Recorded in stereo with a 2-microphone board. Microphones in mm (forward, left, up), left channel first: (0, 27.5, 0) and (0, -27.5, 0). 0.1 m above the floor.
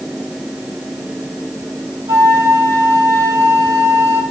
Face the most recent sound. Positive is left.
turn(degrees=-60)  # may be behind; listen again after turning